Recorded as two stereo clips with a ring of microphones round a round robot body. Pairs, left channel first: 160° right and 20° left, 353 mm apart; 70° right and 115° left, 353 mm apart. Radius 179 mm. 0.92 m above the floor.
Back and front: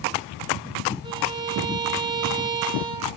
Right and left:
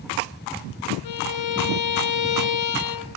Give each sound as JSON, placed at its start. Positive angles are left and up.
{"t": 1.0, "sound": "a violin", "azimuth_deg": -55, "distance_m": 0.8}